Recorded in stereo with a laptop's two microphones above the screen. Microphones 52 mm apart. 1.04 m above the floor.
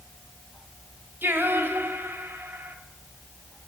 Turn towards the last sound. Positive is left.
turn(degrees=-45)  # may be behind; listen again after turning